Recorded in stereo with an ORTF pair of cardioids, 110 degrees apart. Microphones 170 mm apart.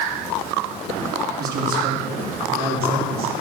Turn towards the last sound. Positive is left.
turn(degrees=-65)